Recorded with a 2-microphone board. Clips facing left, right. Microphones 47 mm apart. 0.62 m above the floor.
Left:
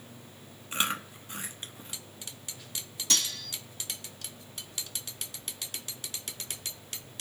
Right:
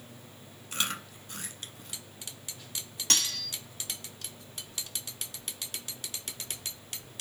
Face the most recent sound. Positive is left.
turn(degrees=-55)  # may be behind; listen again after turning